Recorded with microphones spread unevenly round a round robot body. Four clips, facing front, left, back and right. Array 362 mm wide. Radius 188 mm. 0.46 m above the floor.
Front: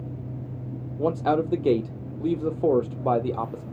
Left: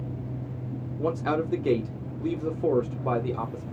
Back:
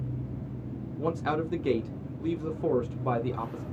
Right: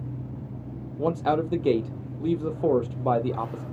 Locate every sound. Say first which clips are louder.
1.0 s a man speaking: right 3 dB, front 6 dB; 15° right, 0.9 m